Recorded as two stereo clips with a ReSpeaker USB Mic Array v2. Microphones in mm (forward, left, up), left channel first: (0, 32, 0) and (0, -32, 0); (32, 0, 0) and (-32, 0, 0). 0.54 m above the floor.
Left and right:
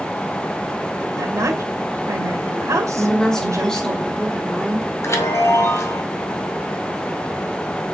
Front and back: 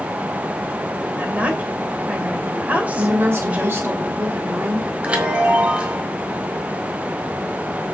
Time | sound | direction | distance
1.2 | a woman speaking | 115° right | 2.5 m
3.0 | a woman speaking | 165° left | 1.1 m
5.0 | a chime | 115° left | 2 m